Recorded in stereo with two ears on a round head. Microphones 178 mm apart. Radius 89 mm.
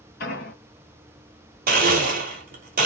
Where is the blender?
50° right (ahead or behind), 1.0 m.